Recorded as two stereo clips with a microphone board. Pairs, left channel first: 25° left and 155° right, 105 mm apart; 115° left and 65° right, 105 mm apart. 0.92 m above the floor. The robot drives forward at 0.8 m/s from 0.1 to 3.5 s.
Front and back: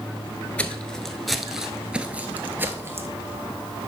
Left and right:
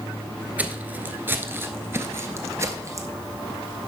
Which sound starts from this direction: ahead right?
Footsteps, at 0.6 s.